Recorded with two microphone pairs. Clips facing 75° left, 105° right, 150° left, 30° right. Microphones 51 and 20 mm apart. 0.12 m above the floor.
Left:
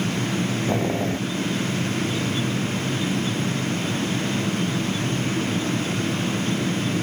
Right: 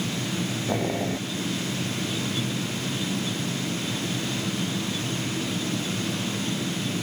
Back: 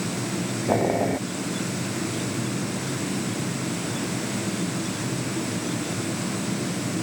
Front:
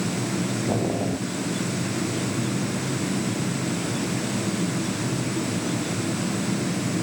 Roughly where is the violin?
No violin in this recording.